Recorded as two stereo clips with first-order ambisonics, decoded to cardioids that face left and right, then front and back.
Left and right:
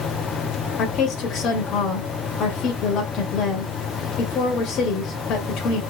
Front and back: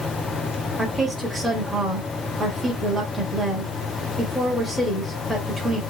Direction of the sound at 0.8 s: 100° left.